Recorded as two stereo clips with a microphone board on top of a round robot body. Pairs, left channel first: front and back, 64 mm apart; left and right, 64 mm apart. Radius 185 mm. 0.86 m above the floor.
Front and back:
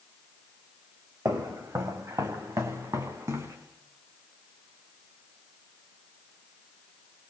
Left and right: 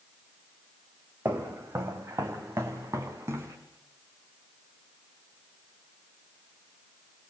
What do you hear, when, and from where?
1.2 s footsteps: 150° right, 3.5 m; by 3.6 s 145° right, 5 m